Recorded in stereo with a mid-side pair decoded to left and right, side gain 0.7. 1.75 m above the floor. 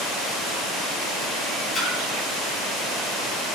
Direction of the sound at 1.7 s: 20° left.